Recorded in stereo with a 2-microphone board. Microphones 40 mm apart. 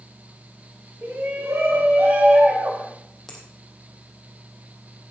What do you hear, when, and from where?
1.0 s a shout: 80° right, 7.5 m; by 2.9 s 75° right (ahead or behind), 7.5 m
3.3 s a finger snap: 5° left (ahead or behind), 3.5 m